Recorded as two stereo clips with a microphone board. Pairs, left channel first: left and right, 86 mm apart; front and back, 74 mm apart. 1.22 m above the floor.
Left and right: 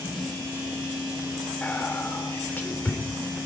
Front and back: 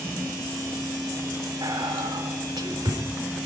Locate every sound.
1.6 s whispering: 160° left, 3.5 m